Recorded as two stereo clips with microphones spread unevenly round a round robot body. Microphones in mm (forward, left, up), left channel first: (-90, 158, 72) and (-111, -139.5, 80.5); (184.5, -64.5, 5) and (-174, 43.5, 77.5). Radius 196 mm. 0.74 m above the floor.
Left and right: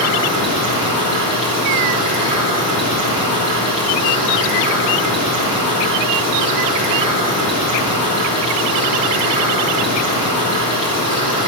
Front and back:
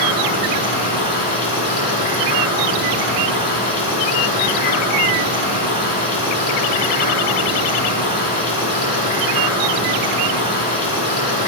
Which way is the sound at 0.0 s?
85° right.